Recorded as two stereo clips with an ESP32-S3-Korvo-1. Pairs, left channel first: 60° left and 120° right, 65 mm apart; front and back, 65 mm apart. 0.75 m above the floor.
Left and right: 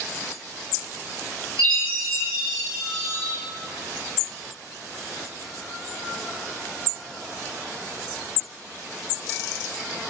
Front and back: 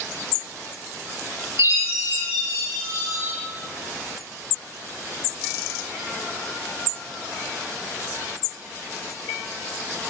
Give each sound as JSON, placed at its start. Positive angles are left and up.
{"t": 1.6, "sound": "a chime", "azimuth_deg": -140, "distance_m": 1.9}